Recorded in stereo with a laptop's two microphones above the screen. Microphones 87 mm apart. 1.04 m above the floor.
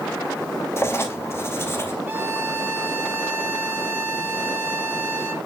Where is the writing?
30° left (ahead or behind), 0.9 m.